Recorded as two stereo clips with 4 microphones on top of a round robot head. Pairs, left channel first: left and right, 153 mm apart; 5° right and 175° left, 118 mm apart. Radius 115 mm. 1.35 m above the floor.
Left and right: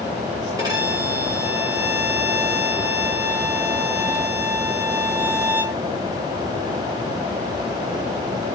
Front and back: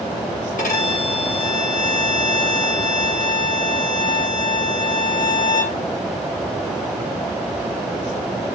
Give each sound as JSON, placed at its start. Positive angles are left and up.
{"t": 0.6, "sound": "a violin", "azimuth_deg": -20, "distance_m": 2.5}